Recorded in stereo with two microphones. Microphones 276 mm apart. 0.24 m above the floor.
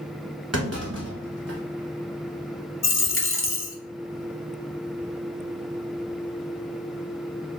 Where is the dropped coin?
50° left (ahead or behind), 0.6 m.